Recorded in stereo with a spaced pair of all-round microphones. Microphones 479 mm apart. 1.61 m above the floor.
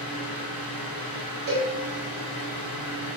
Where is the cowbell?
35° right (ahead or behind), 1.7 m.